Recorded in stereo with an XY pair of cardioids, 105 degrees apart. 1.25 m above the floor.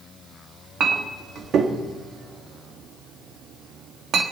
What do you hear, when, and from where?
0.8 s a clink: 60° right, 1.6 m